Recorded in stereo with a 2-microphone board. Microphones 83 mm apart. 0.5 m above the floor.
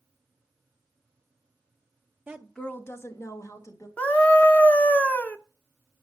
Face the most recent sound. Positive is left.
turn(degrees=20)  # may be behind; listen again after turning